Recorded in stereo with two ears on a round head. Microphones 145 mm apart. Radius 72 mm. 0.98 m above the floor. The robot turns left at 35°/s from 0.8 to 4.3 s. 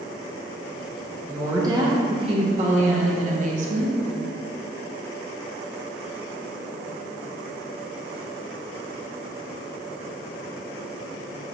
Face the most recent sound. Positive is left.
turn(degrees=-125)